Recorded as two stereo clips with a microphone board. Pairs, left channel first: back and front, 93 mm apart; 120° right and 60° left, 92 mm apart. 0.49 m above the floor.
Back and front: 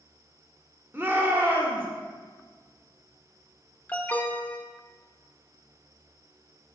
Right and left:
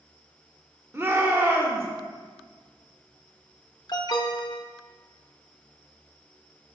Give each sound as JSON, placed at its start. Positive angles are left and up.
{"t": 0.9, "sound": "a shout", "azimuth_deg": 30, "distance_m": 1.4}
{"t": 3.9, "sound": "an alarm", "azimuth_deg": -115, "distance_m": 0.6}